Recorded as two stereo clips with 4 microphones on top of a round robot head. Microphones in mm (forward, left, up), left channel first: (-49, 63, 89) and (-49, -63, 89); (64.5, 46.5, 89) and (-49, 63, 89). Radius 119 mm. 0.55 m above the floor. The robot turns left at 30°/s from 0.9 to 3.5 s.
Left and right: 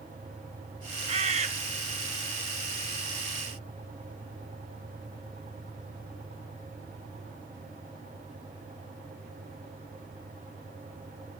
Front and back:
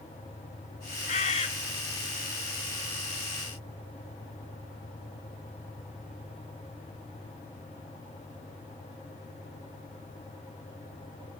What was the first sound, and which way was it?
A bird, 40° right.